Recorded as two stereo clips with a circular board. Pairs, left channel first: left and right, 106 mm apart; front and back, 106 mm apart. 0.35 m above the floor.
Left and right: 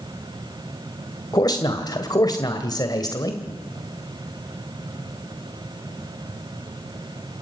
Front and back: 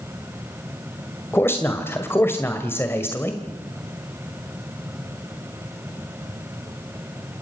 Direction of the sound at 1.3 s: 60° left.